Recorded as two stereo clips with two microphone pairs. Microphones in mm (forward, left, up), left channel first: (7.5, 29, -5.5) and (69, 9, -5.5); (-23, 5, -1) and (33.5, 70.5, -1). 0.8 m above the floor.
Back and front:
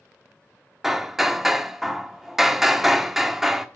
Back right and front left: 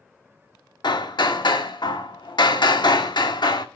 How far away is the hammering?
About 1.3 m.